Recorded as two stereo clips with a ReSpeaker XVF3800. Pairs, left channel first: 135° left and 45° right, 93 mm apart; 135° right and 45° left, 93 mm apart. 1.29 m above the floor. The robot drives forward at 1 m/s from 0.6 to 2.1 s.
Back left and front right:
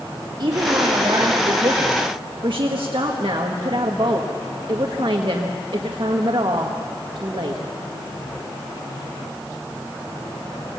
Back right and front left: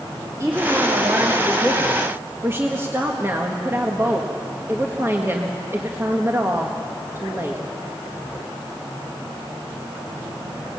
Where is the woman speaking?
10° right, 3 m; by 7.6 s 20° right, 1.7 m.